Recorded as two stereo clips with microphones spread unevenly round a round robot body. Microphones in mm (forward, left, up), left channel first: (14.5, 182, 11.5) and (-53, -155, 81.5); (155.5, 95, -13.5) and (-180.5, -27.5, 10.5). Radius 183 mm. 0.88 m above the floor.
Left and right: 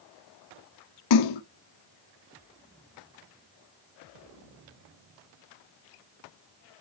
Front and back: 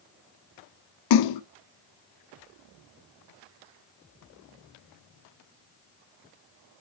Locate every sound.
1.1 s a splash: 50° left, 0.7 m